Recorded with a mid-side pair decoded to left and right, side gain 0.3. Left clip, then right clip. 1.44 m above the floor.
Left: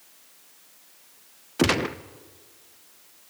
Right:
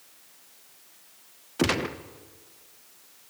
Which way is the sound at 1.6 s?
30° left.